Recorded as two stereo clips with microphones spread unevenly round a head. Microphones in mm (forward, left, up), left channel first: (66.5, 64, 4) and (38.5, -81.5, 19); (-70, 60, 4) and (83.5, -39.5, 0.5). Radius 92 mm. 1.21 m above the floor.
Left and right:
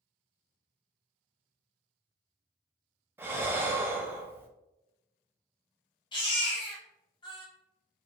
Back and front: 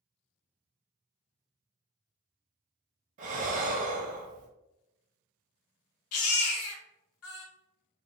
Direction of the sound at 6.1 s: 145° left.